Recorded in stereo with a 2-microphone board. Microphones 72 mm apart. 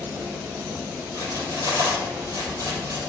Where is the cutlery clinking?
55° right (ahead or behind), 2.5 m.